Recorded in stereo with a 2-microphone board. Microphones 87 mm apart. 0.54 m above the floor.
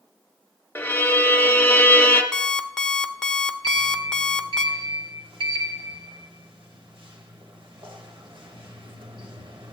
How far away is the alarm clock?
About 0.7 m.